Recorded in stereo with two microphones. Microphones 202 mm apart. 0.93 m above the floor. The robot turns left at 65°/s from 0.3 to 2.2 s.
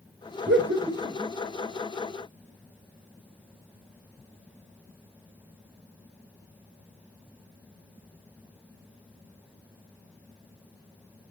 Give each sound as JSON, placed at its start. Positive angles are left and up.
{"t": 0.5, "sound": "laughter", "side_deg": -65, "distance_m": 1.5}